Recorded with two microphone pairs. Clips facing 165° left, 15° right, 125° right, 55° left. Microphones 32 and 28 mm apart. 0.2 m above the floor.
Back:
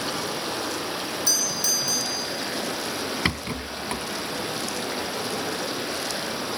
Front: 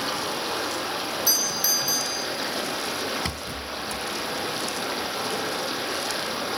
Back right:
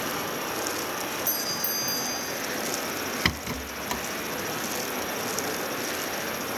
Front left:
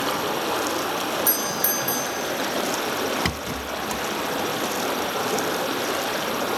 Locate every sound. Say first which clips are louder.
0.0 s running water: front 1 dB, front left 6 dB; 65° left, 6 m
1.3 s a doorbell: back 1 dB, front left 5 dB; 65° left, 4.5 m
3.2 s a rattle: back 4 dB, front left 1 dB; 170° left, 0.7 m